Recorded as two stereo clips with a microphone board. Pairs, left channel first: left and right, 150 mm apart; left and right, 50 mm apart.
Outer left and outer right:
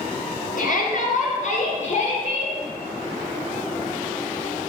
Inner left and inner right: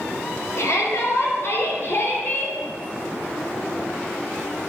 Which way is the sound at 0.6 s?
70° left (ahead or behind).